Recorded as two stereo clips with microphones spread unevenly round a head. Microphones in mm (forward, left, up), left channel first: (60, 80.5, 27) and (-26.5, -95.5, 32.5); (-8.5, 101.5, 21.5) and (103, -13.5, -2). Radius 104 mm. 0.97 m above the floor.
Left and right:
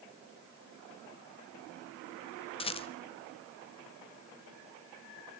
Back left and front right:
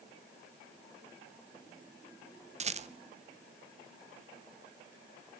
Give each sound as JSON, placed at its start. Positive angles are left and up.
{"t": 2.6, "sound": "a rattle", "azimuth_deg": 0, "distance_m": 0.9}